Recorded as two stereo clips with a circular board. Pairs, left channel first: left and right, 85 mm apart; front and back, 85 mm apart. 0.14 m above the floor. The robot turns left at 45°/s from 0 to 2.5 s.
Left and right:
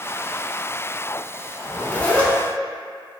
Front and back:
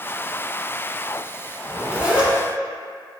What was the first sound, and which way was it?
A zipper, 140° left.